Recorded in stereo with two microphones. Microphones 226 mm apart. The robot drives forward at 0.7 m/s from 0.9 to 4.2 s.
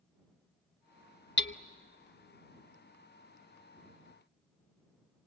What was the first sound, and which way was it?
Hammering, 55° left (ahead or behind).